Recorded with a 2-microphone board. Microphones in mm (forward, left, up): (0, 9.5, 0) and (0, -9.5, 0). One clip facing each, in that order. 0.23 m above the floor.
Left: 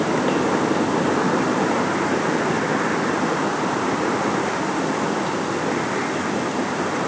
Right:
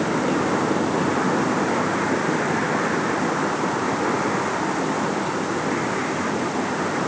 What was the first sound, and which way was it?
Only background noise.